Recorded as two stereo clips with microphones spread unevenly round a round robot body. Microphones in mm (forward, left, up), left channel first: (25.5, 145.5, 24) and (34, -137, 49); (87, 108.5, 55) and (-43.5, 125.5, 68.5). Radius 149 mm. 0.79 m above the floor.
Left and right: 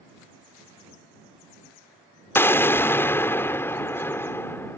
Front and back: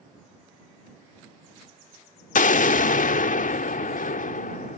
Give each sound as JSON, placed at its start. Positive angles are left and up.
{"t": 2.4, "sound": "an explosion", "azimuth_deg": 10}